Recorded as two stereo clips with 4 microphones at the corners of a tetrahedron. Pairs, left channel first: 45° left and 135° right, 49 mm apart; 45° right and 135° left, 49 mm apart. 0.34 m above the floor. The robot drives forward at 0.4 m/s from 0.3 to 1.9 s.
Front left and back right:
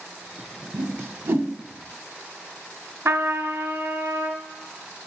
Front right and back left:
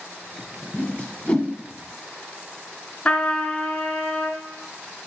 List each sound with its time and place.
0.7 s a whoosh: 100° right, 0.9 m; by 1.5 s 120° right, 1.1 m
3.0 s a trumpet: 115° right, 1.0 m